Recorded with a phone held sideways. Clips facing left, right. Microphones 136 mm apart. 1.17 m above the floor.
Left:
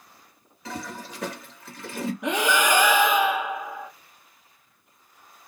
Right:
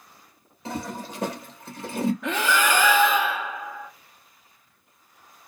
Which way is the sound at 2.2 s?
15° left (ahead or behind).